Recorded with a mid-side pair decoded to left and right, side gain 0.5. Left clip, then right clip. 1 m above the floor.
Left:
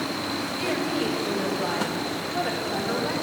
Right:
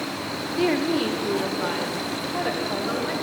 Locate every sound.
0.6 s a woman speaking: 60° right, 1.9 m; by 3.1 s 40° right, 5 m